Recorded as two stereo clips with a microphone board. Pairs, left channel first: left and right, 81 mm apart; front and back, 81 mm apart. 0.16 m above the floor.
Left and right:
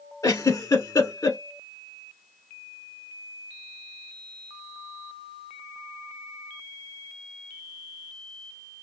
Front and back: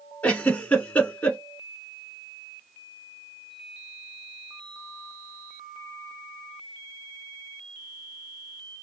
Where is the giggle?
65° left, 0.7 m.